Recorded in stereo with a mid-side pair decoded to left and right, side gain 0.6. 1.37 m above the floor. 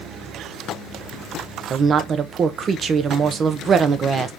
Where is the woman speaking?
35° right, 0.9 m.